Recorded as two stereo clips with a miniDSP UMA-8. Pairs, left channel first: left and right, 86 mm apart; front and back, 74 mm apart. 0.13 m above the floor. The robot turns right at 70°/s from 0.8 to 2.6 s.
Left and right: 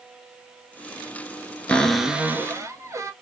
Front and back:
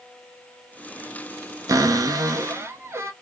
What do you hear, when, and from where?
1.7 s a cupboard door: 165° left, 0.5 m; by 3.1 s 135° right, 0.5 m